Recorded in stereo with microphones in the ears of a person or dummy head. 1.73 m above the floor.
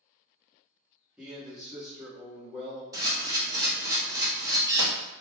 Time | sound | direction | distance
1.2 | a man speaking | 5° right (ahead or behind) | 1.4 m
2.9 | a camera shutter | 20° right (ahead or behind) | 1.0 m